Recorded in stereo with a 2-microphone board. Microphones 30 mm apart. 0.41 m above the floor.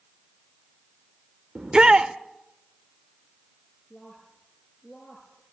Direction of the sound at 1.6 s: 30° right (ahead or behind).